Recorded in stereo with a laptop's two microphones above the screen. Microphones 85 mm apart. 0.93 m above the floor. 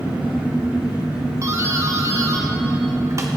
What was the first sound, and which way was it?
An engine running, 25° right (ahead or behind).